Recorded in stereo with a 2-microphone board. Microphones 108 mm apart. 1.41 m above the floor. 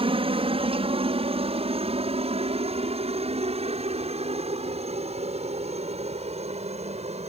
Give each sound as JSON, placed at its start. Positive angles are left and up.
{"t": 0.0, "sound": "a helicopter", "side_deg": -60}